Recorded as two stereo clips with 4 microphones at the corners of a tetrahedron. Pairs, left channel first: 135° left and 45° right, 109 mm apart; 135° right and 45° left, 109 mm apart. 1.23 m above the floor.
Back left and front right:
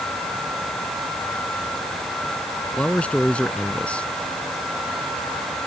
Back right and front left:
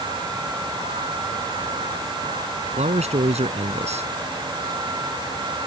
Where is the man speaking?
55° left.